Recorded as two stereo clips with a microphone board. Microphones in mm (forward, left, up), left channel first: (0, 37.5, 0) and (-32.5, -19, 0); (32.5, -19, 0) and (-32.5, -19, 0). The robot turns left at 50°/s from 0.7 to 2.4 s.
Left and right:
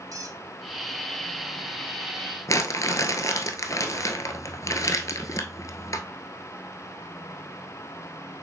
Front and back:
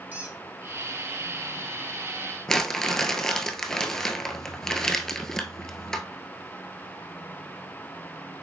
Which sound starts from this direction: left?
Crumpling, at 2.5 s.